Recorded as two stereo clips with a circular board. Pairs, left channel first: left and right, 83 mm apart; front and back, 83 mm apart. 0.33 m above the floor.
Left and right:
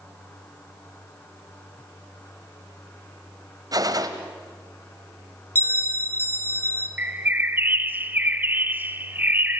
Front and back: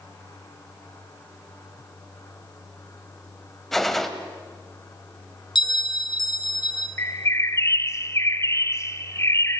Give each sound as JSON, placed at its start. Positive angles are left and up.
{"t": 3.7, "sound": "a gunshot", "azimuth_deg": -85, "distance_m": 1.4}
{"t": 5.5, "sound": "a bell", "azimuth_deg": 25, "distance_m": 1.4}
{"t": 7.0, "sound": "a bird", "azimuth_deg": -35, "distance_m": 0.9}